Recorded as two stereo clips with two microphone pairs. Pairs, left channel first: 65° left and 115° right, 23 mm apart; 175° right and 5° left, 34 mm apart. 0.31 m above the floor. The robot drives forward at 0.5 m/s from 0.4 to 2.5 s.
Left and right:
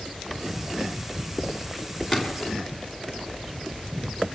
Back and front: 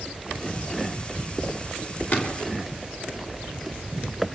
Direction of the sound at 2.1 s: 160° left.